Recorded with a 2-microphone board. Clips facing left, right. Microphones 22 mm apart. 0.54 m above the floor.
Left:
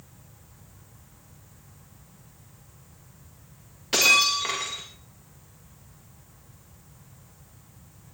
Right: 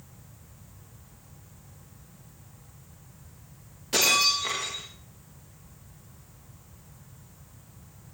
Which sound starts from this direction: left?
Breaking glass, at 3.9 s.